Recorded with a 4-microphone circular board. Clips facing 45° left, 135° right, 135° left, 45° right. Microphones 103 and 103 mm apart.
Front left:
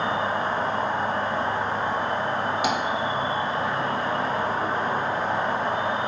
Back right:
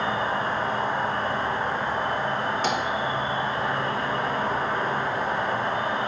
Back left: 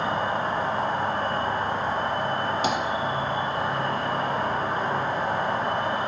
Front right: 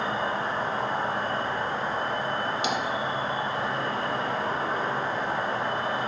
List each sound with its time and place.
0.0 s an insect: 105° left, 0.8 m
2.6 s tapping: 120° left, 0.7 m